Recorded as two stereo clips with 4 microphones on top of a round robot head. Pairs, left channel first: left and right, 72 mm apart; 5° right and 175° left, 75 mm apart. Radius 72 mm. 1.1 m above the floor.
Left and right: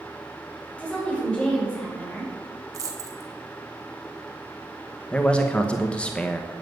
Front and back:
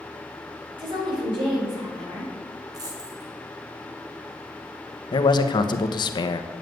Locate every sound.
0.8 s a woman speaking: 165° left, 5.5 m
2.7 s a dropped coin: 130° right, 1.7 m
5.1 s a man speaking: 15° left, 1.0 m